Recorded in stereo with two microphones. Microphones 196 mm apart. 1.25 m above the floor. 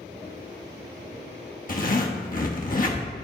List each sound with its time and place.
1.7 s a zipper: 45° left (ahead or behind), 1.0 m